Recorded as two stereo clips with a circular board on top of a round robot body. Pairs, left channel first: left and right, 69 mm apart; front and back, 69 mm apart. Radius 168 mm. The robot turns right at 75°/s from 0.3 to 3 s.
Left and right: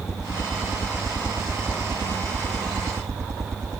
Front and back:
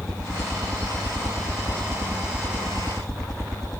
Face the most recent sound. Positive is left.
turn(degrees=-80)